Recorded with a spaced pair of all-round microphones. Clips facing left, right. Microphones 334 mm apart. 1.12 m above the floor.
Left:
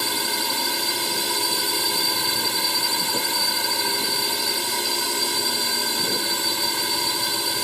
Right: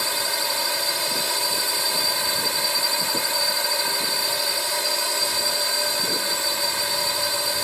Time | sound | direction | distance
0.0 | a drone | 45° left (ahead or behind) | ?